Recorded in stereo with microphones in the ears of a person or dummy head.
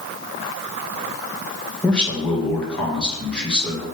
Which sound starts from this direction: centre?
A man speaking, at 1.8 s.